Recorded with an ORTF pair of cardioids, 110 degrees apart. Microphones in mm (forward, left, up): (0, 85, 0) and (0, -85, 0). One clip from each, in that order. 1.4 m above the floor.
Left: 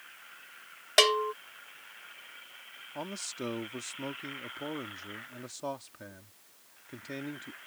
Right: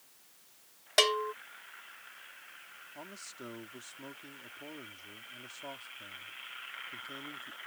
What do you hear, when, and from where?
1.0 s a bell: 15° left
3.0 s a man speaking: 50° left